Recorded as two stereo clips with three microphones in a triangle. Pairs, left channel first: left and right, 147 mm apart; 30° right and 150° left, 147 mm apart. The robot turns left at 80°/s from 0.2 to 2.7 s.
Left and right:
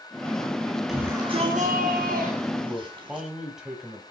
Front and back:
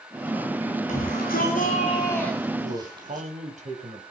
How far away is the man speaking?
About 3.5 m.